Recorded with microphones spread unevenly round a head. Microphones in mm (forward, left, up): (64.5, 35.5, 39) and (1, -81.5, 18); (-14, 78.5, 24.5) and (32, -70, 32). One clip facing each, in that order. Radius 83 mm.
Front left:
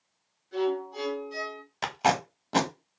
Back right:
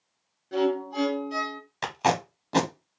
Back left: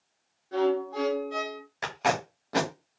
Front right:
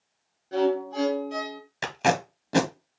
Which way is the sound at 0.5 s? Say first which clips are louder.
Back right 3 dB, front right 2 dB; 135° right.